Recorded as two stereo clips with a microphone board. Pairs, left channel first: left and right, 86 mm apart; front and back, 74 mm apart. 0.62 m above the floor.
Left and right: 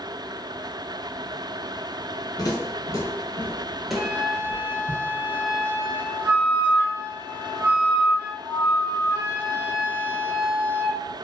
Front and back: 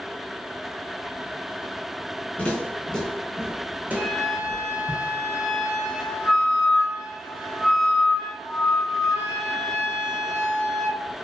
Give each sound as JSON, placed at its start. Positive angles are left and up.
{"t": 2.4, "sound": "footsteps", "azimuth_deg": 65, "distance_m": 0.9}
{"t": 4.0, "sound": "a flute", "azimuth_deg": -75, "distance_m": 0.7}